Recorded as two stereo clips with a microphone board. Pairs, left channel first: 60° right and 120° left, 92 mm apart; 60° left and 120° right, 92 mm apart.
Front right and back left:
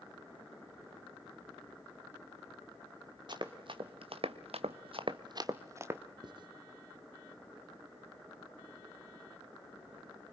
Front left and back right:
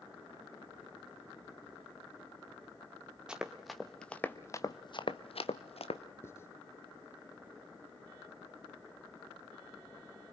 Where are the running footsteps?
160° left, 2.5 m; by 6.0 s 50° left, 2 m.